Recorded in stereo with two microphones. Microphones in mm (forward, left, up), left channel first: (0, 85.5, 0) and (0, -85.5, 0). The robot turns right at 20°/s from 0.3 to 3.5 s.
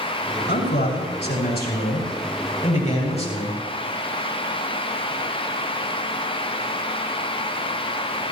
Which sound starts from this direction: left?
A man speaking, at 0.5 s.